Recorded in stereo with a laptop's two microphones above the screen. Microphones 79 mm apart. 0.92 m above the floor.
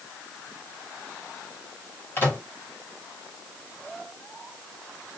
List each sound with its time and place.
2.2 s a microwave: 30° left (ahead or behind), 1.4 m